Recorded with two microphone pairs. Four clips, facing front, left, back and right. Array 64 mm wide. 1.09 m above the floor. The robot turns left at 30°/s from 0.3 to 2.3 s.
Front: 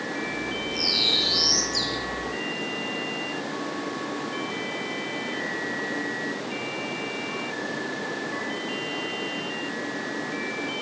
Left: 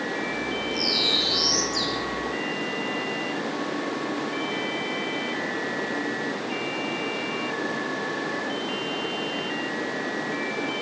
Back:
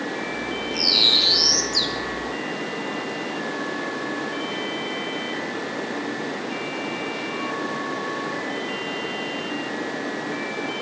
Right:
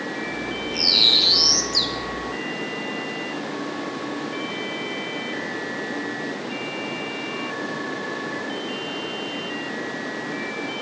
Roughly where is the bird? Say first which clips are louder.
Right 1 dB, back 3 dB; behind right.